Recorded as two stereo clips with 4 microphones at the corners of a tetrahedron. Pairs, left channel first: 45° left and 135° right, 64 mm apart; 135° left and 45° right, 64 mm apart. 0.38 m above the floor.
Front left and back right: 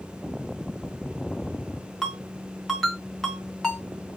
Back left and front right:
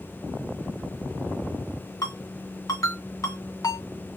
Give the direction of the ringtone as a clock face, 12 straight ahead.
8 o'clock.